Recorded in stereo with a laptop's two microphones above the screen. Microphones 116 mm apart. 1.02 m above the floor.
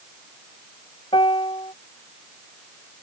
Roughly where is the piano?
Left.